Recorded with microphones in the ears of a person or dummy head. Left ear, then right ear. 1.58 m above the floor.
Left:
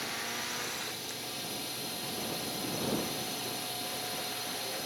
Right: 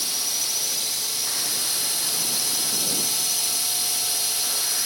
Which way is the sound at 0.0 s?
50° right (ahead or behind).